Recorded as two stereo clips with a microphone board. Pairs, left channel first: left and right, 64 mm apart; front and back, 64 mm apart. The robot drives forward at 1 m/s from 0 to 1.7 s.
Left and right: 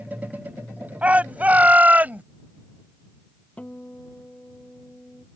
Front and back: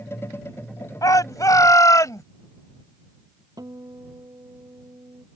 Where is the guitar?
160° left.